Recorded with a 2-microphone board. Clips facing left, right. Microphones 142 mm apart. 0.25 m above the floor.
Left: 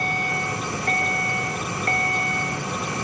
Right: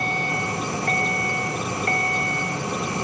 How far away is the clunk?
I don't hear a clunk.